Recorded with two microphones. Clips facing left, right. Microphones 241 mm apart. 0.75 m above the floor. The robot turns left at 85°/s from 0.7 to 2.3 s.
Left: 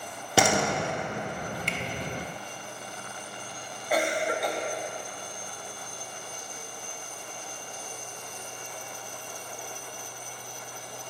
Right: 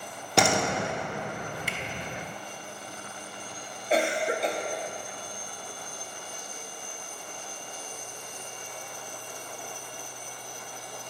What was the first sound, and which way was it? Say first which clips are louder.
A door slam: left 1 dB; 5° left (ahead or behind).